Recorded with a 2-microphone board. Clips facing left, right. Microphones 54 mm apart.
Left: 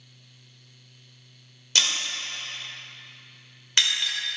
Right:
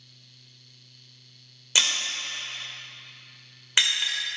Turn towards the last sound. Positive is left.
turn(degrees=-15)  # may be behind; listen again after turning